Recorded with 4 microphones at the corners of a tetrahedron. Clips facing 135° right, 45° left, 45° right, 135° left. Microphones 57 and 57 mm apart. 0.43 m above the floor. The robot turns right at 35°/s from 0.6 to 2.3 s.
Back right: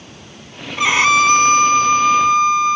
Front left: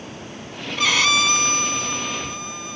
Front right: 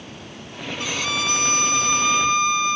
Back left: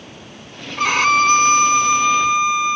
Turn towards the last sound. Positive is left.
turn(degrees=-150)